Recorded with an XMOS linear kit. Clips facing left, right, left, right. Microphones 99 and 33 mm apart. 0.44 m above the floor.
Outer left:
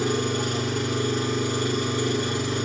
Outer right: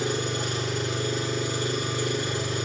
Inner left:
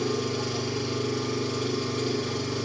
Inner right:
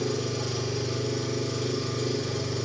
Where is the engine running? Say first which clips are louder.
Outer left 4 dB, inner left 1 dB; 50° left (ahead or behind), 3 m.